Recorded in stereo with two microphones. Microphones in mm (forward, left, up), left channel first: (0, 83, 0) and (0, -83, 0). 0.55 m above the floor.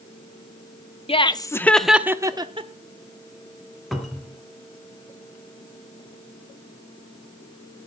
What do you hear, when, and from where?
1.1 s laughter: 35° left (ahead or behind), 0.8 m; by 2.7 s 35° right (ahead or behind), 0.9 m
3.9 s a cupboard door: centre (ahead or behind), 2 m